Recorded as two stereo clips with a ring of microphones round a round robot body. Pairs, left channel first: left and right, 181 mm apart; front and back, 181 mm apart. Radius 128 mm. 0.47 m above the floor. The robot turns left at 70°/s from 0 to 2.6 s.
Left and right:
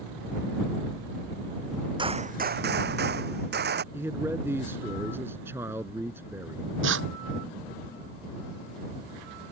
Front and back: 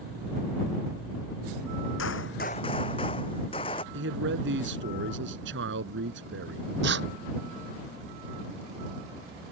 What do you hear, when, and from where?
2.0 s a gunshot: 30° right; by 3.8 s 70° right
3.9 s a man speaking: 170° right
6.8 s tearing paper: 130° right